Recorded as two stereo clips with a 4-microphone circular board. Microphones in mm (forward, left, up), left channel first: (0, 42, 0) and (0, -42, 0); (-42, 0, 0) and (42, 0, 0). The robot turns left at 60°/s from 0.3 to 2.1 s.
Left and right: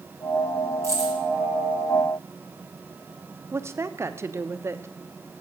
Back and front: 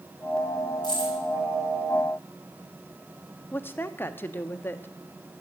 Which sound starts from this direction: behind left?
Keys jangling, at 0.8 s.